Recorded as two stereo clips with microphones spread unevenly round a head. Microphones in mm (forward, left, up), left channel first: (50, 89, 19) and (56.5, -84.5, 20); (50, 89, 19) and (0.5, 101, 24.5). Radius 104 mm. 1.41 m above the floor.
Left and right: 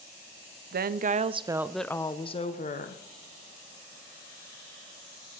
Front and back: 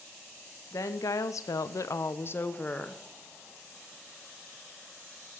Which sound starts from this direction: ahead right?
A woman speaking, at 0.7 s.